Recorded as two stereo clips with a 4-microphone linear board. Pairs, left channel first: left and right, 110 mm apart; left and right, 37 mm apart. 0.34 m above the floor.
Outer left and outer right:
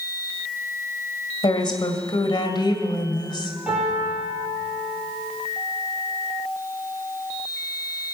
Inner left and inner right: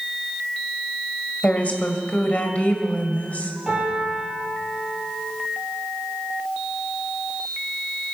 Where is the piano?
10° right (ahead or behind), 6 m.